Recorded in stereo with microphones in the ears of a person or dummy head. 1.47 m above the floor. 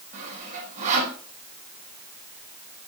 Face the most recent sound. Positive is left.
turn(degrees=-45)  # may be behind; listen again after turning